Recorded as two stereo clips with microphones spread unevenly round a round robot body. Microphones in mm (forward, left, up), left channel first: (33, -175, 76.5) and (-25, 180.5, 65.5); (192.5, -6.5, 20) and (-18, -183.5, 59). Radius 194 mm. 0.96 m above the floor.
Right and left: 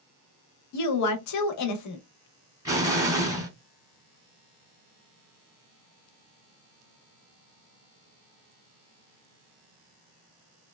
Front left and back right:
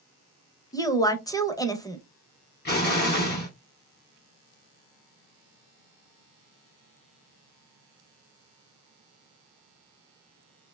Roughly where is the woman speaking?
Ahead right.